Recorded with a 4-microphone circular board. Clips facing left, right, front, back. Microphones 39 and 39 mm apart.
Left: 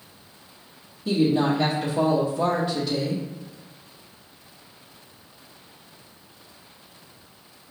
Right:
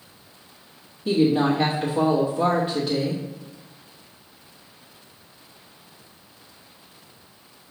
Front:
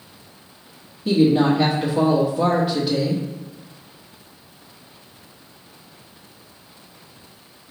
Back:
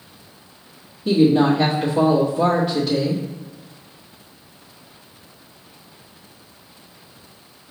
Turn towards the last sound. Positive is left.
turn(degrees=-70)